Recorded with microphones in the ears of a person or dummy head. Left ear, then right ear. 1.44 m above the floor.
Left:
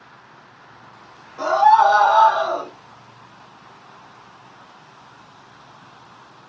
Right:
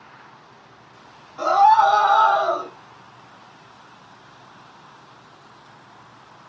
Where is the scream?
10° left (ahead or behind), 1.8 m; by 2.7 s 40° left (ahead or behind), 1.5 m.